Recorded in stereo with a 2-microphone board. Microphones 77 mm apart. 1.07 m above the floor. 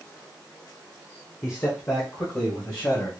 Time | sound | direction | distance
1.4 | a man speaking | 35° left (ahead or behind) | 1.2 m